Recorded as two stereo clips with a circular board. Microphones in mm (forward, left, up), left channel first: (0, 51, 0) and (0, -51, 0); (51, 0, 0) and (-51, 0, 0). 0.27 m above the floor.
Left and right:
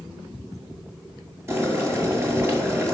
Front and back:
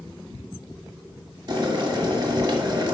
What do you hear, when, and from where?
1.5 s boiling: 145° right, 1.9 m